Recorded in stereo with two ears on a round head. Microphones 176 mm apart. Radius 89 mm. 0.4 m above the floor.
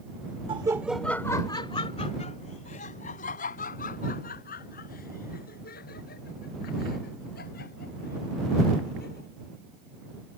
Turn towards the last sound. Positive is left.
turn(degrees=50)  # may be behind; listen again after turning